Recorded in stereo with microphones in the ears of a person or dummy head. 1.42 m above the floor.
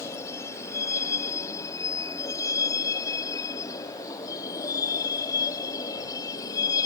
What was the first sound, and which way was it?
A vehicle, 20° left (ahead or behind).